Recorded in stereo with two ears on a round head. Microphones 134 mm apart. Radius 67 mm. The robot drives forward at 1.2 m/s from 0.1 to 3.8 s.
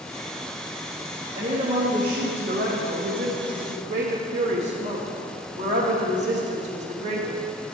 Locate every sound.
1.3 s a woman speaking: 35° right (ahead or behind), 2.5 m; by 7.4 s 50° right (ahead or behind), 1.7 m